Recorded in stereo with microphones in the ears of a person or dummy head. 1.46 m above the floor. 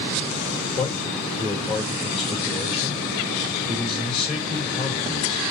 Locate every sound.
0.8 s a man speaking: 5° left (ahead or behind), 1.5 m